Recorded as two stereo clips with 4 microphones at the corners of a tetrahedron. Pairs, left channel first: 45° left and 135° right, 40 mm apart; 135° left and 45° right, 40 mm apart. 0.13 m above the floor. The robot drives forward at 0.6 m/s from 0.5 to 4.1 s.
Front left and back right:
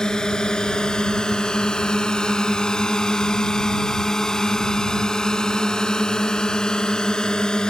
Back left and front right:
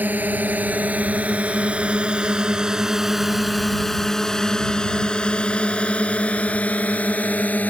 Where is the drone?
25° right; by 7.7 s 110° left.